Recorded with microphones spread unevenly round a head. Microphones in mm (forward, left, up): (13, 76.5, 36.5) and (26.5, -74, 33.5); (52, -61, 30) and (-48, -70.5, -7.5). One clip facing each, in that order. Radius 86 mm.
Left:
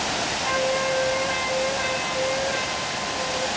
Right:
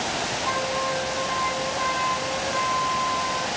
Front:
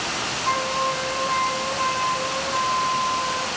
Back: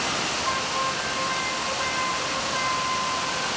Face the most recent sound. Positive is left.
turn(degrees=45)